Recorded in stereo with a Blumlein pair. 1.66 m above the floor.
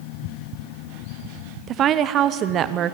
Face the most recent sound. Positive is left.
turn(degrees=-30)